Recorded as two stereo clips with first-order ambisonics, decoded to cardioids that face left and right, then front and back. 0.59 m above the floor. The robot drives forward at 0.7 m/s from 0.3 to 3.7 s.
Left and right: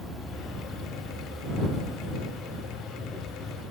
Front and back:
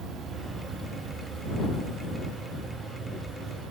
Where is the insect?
165° left, 1.6 m; by 3.7 s 175° left, 3.5 m.